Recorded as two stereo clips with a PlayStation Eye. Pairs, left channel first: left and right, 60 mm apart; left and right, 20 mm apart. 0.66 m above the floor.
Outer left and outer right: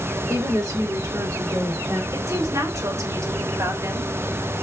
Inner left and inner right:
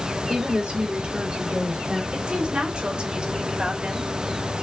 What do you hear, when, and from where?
0.3 s a woman speaking: 70° right (ahead or behind), 3 m; by 2.0 s 45° right (ahead or behind), 2 m
2.1 s a woman speaking: 70° right (ahead or behind), 3 m